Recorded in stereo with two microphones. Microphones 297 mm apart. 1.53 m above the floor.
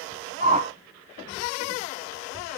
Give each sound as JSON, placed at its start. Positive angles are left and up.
{"t": 0.4, "sound": "a whoosh", "side_deg": -25, "distance_m": 0.8}